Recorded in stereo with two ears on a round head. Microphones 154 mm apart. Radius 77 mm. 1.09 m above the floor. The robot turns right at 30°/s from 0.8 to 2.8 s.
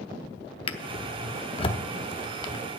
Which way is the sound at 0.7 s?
30° left (ahead or behind).